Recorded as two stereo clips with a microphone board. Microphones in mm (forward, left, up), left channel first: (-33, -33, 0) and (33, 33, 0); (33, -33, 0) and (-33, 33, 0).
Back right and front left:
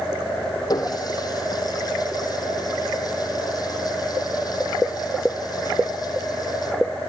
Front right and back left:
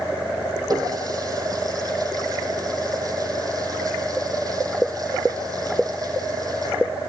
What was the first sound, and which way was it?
A running tap, straight behind.